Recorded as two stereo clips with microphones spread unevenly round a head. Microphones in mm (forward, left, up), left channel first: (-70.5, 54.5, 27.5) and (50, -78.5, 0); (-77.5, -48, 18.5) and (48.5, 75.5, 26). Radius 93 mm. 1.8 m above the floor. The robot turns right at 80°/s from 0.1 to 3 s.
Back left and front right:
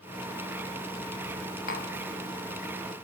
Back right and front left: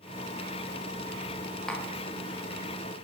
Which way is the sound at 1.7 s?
135° left.